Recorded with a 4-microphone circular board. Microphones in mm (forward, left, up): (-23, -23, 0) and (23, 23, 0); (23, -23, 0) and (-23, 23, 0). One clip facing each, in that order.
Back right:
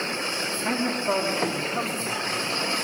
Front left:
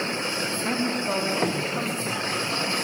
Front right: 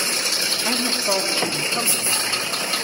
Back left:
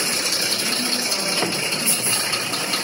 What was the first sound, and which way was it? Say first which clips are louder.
A man speaking: back right 2 dB, front right 3 dB; 50° right.